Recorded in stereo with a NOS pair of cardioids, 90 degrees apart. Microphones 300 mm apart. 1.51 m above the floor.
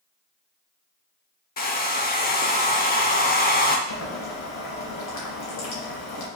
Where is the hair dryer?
30° left, 0.6 m.